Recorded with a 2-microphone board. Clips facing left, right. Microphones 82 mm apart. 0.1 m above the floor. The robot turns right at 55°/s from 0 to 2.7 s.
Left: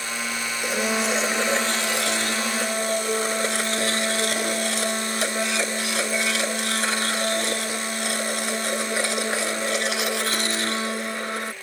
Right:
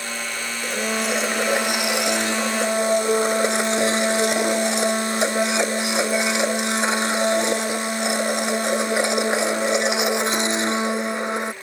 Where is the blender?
5° left (ahead or behind); by 11.5 s 20° right (ahead or behind).